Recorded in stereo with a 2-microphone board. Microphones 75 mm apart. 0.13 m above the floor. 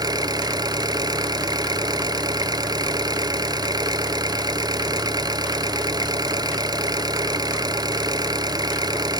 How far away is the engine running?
About 0.9 m.